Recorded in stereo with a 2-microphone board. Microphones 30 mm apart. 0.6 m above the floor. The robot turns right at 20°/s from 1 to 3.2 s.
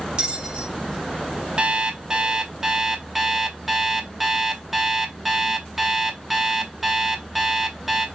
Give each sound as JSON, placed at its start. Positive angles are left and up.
{"t": 0.2, "sound": "a bell", "side_deg": -30, "distance_m": 1.0}
{"t": 1.6, "sound": "an alarm clock", "azimuth_deg": -40, "distance_m": 0.6}